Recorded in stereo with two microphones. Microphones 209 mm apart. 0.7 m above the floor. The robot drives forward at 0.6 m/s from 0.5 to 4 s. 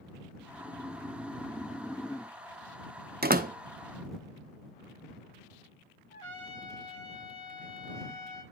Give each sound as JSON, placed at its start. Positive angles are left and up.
{"t": 0.4, "sound": "snoring", "side_deg": 0, "distance_m": 1.7}
{"t": 3.2, "sound": "a door slam", "side_deg": -50, "distance_m": 0.7}
{"t": 6.1, "sound": "a trumpet", "side_deg": 20, "distance_m": 5.5}